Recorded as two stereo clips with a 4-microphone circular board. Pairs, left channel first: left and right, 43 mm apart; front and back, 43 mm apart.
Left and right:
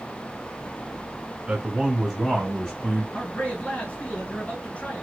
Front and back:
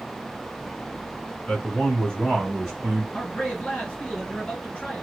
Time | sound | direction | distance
1.5 | a man speaking | 45° right | 1.5 m
3.1 | a man speaking | 50° left | 2 m